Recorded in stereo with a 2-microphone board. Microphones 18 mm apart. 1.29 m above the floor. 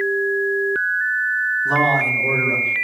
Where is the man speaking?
20° right (ahead or behind), 4.5 m; by 2.7 s 25° right (ahead or behind), 5 m.